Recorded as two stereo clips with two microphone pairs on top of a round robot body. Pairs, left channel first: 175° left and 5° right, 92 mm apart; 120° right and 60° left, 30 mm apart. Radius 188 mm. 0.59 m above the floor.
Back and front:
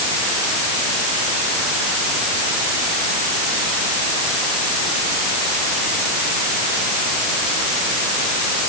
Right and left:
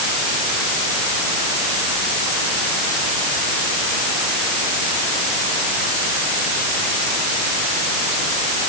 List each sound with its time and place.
Only background noise.